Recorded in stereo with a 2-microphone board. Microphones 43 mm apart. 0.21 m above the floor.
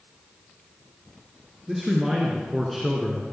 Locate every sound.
1.7 s a man speaking: 10° right (ahead or behind), 2.5 m; by 3.2 s centre (ahead or behind), 1.9 m